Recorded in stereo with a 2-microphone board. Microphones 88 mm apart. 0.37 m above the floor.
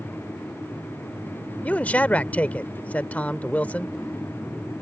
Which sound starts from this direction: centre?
A man speaking, at 1.6 s.